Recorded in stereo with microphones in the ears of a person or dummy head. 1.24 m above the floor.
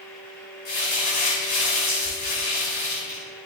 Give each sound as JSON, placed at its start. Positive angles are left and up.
{"t": 0.7, "sound": "crumpling", "side_deg": 55, "distance_m": 5.5}